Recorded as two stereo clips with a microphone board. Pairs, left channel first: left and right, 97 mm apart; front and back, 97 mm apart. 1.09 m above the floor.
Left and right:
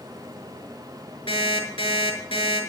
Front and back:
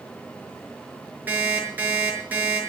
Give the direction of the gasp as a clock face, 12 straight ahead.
I don't hear a gasp.